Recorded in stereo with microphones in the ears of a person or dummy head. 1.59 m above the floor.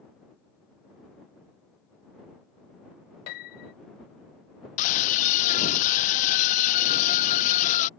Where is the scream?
40° left (ahead or behind).